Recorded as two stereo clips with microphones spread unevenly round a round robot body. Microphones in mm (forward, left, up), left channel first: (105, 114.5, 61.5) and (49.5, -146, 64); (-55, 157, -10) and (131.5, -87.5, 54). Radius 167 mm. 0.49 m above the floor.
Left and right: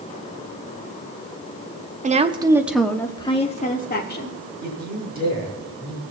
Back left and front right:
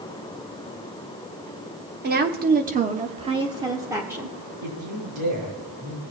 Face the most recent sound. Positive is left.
turn(degrees=-45)